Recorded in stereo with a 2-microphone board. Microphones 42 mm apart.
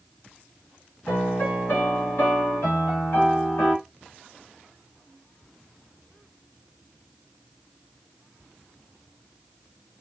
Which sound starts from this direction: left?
A piano, at 1.1 s.